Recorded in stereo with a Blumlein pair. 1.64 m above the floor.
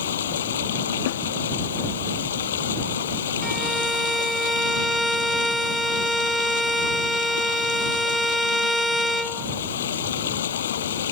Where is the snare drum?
50° left.